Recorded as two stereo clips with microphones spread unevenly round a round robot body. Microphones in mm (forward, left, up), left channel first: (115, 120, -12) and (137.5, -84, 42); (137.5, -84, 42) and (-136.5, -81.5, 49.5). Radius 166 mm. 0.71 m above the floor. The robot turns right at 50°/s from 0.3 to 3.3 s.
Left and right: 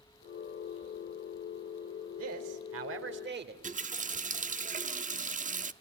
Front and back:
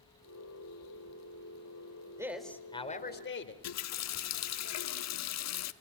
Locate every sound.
2.2 s a man speaking: 100° right, 3 m; by 3.5 s 45° right, 3 m
3.6 s a running tap: 25° right, 1.1 m